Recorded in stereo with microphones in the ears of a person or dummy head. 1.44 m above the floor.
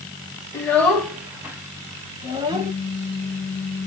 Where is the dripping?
I don't hear dripping.